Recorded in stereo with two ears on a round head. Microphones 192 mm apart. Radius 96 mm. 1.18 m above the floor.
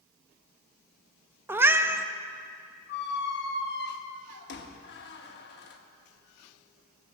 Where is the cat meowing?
10° right (ahead or behind), 0.6 m.